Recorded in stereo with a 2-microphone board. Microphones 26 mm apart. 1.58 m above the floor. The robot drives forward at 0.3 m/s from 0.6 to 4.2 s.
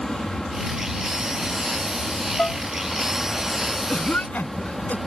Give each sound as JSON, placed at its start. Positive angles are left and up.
{"t": 0.0, "sound": "an aircraft", "side_deg": 20}
{"t": 2.4, "sound": "dishes clattering", "side_deg": 45}
{"t": 3.9, "sound": "a cough", "side_deg": 75}